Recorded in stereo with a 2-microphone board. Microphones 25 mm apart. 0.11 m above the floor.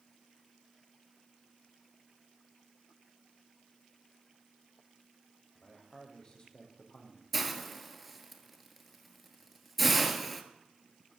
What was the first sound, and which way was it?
A man speaking, 30° left (ahead or behind).